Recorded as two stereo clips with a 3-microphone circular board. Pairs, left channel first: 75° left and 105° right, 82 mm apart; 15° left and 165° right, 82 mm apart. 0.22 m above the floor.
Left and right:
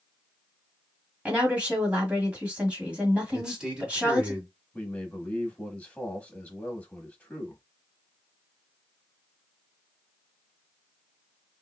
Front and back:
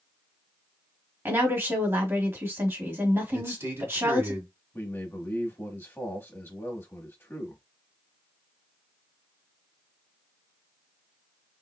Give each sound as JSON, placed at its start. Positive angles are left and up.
{"t": 1.2, "sound": "a woman speaking", "azimuth_deg": -160, "distance_m": 1.4}
{"t": 3.3, "sound": "a man speaking", "azimuth_deg": 180, "distance_m": 1.8}
{"t": 4.7, "sound": "a man speaking", "azimuth_deg": 25, "distance_m": 1.1}